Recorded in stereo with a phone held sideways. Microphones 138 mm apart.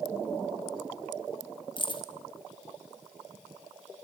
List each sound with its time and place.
1.8 s keys jangling: 35° left (ahead or behind), 1.8 m